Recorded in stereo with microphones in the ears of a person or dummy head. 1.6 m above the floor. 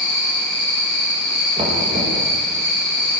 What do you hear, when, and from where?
0.0 s an insect: 65° right (ahead or behind), 5 m
1.6 s knocking: 30° right (ahead or behind), 2 m